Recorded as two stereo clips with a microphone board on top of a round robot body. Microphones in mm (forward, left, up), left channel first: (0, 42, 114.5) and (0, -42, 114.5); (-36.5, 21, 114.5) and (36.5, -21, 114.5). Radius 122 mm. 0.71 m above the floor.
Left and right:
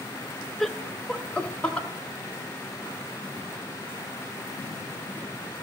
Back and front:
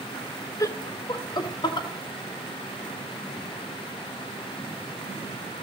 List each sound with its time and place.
0.6 s laughter: 175° left, 0.8 m; by 1.9 s 165° left, 1.6 m